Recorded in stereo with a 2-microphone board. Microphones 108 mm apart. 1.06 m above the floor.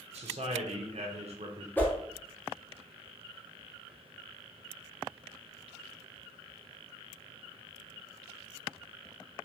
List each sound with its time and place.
0.1 s a man speaking: 70° right (ahead or behind), 0.6 m
1.8 s a whoosh: 15° left (ahead or behind), 0.6 m